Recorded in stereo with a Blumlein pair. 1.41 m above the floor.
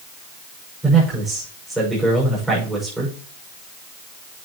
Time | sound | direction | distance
0.8 | a man speaking | 10° right | 6 m